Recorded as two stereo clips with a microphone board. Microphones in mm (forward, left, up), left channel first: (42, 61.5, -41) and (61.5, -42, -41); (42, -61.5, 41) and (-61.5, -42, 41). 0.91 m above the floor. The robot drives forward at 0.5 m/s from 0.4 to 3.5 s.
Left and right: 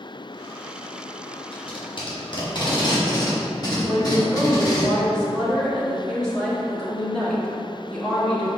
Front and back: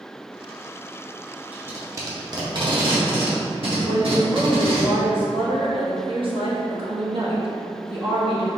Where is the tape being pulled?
100° left, 0.8 m; by 4.8 s 150° left, 1.3 m.